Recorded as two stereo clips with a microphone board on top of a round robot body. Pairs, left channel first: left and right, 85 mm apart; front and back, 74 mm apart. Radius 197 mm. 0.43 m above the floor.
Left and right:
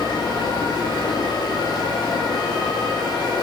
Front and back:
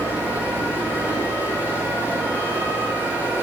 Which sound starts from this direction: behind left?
Running water, at 0.0 s.